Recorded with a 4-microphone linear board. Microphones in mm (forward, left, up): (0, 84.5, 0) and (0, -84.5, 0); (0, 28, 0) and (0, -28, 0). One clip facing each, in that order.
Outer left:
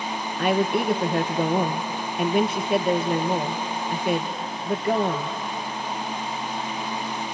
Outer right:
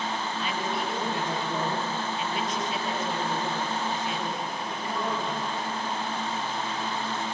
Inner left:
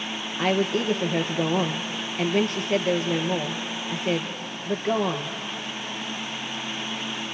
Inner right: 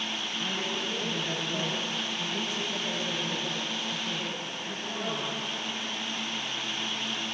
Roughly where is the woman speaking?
Left.